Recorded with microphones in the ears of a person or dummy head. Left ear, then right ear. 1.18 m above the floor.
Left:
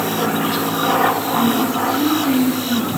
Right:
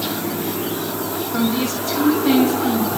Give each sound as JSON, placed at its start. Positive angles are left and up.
{"t": 1.3, "sound": "a woman speaking", "side_deg": -60, "distance_m": 7.5}